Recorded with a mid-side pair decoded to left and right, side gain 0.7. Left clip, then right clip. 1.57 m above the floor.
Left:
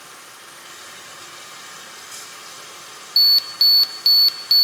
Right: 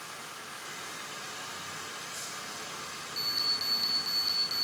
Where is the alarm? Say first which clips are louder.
Left 16 dB; 65° left, 0.6 m.